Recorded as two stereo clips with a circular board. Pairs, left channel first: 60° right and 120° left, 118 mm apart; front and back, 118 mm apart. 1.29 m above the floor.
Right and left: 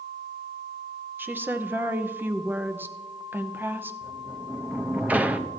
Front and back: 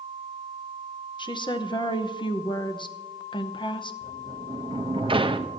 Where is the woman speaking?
45° left, 0.8 m.